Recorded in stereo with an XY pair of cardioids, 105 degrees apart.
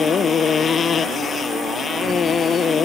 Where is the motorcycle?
45° left.